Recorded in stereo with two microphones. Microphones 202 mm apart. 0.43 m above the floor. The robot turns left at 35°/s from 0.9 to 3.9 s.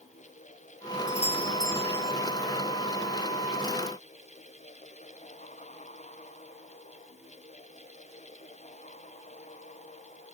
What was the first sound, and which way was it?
A doorbell, 35° left.